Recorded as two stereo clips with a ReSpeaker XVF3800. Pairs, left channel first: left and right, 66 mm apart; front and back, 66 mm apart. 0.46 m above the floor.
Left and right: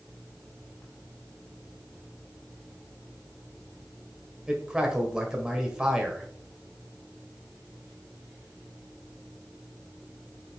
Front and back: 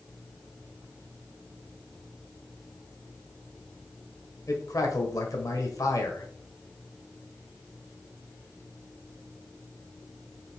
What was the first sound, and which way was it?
A man speaking, 15° right.